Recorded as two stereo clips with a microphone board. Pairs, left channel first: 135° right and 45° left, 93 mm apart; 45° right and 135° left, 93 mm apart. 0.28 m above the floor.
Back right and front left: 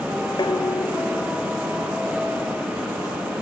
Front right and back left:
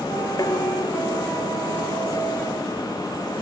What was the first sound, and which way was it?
Dishes clattering, 95° right.